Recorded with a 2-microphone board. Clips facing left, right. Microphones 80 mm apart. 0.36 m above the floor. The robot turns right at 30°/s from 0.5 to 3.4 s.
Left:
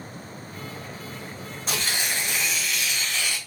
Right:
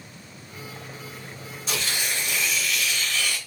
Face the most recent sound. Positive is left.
turn(degrees=145)